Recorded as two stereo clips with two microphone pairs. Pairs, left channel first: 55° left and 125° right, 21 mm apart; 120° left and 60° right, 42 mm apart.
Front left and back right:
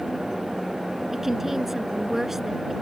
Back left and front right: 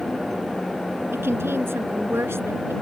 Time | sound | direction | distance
1.1 | a woman speaking | 45° right | ?